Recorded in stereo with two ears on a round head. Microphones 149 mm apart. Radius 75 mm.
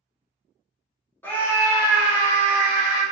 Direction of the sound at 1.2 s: 10° left (ahead or behind).